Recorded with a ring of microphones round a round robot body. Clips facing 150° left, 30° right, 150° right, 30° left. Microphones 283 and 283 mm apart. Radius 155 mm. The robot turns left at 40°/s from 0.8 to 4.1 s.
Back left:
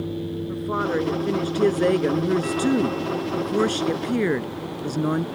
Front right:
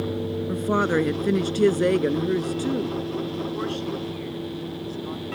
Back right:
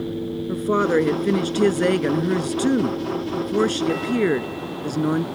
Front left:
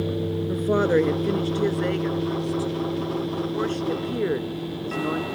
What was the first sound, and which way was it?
A woman speaking, 70° right.